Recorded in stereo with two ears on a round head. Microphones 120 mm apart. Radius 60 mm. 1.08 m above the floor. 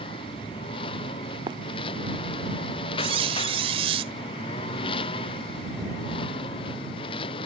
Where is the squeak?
45° right (ahead or behind).